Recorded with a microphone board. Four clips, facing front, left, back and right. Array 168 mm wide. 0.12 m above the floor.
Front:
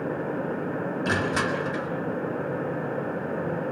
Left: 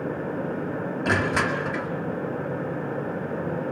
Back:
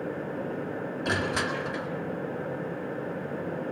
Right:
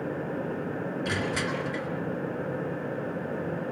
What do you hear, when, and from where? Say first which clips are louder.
1.1 s crushing: left 8 dB, front 2 dB; 75° left, 2 m